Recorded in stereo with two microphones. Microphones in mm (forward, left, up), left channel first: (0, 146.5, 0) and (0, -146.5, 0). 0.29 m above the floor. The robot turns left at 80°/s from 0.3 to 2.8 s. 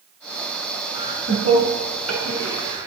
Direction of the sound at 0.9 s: 15° right (ahead or behind).